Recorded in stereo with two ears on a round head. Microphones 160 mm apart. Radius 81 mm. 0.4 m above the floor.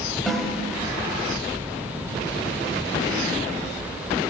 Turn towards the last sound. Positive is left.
turn(degrees=0)  # may be behind; listen again after turning